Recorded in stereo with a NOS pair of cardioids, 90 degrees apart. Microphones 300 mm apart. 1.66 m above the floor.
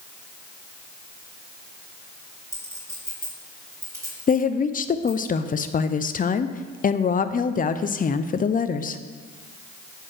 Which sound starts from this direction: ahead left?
A woman speaking, at 4.3 s.